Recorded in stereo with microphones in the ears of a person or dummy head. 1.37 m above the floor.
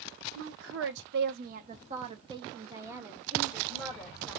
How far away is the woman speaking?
About 0.8 m.